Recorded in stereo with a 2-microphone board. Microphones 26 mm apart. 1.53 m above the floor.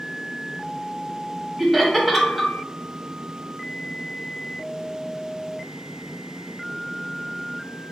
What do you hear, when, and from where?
1.6 s laughter: 10° left (ahead or behind), 1.0 m